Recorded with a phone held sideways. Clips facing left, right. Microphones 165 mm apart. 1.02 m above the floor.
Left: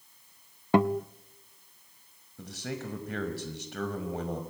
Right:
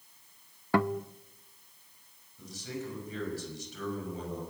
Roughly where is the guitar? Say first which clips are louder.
Left 4 dB; left.